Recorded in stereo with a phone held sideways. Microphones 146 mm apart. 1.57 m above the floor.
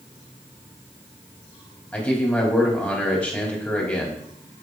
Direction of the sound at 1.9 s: 10° left (ahead or behind).